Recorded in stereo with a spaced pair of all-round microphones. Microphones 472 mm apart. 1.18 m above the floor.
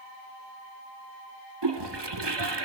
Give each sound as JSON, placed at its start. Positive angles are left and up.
{"t": 1.6, "sound": "a toilet flushing", "side_deg": -60, "distance_m": 1.1}